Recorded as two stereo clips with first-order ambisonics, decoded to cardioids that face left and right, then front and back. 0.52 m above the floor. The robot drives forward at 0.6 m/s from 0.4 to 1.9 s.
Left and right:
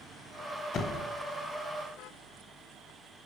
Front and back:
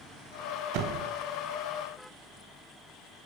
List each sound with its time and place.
0.7 s a door slam: 150° left, 2.5 m; by 1.1 s 155° left, 2.5 m